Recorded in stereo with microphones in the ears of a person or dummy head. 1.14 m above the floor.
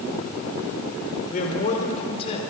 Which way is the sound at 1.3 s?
45° left (ahead or behind).